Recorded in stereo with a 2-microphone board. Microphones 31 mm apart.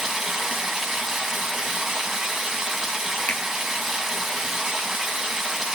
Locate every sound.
0.0 s running water: 15° right (ahead or behind), 2.5 m
3.3 s a finger snap: 45° left (ahead or behind), 1.3 m